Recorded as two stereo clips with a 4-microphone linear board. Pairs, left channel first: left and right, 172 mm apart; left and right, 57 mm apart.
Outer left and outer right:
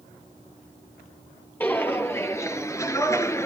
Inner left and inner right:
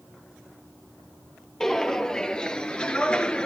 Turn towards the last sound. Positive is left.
turn(degrees=15)  # may be behind; listen again after turning